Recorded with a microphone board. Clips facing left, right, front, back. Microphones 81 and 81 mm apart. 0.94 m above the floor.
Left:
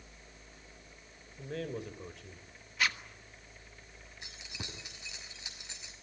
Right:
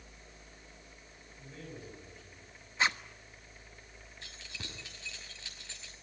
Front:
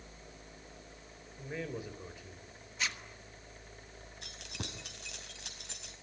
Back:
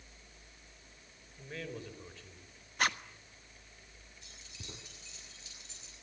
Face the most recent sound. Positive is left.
turn(degrees=15)